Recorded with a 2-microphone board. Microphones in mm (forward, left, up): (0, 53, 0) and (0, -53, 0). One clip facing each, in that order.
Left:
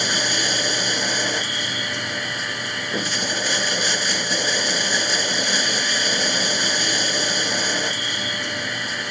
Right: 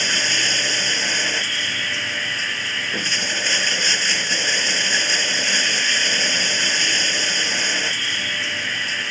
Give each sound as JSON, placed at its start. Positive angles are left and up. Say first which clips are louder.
{"t": 0.0, "sound": "running water", "louder": "left 1 dB", "side_deg": 15}